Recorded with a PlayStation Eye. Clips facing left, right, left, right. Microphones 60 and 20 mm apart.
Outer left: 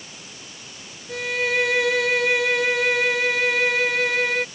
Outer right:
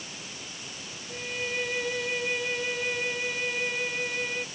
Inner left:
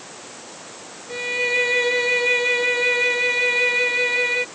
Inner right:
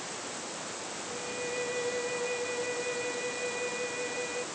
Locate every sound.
1.1 s a violin: 85° left